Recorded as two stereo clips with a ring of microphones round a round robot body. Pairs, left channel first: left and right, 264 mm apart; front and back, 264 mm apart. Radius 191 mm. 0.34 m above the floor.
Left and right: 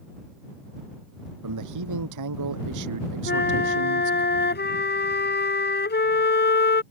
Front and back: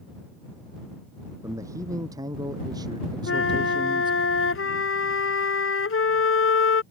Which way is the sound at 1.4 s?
100° right.